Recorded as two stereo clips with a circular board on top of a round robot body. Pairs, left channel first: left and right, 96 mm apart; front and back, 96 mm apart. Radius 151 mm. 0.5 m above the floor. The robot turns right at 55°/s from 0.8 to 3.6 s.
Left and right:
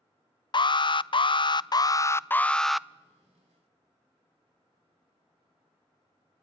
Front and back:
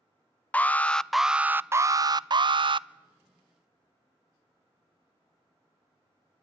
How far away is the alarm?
About 0.6 m.